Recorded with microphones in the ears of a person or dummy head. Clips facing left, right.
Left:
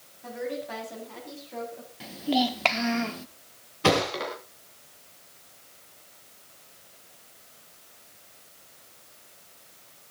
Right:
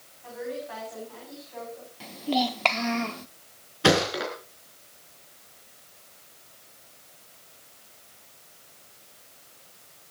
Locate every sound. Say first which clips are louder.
0.2 s a woman speaking: left 1 dB; 55° left (ahead or behind), 8.5 m; by 1.9 s 65° left (ahead or behind), 8.5 m
2.0 s a child speaking: left 1 dB; centre (ahead or behind), 0.9 m
3.8 s a thud: right 2 dB; 5° right (ahead or behind), 3.5 m